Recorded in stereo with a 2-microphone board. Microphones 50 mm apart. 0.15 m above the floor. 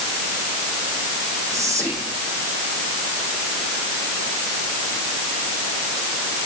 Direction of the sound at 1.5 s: 80° right.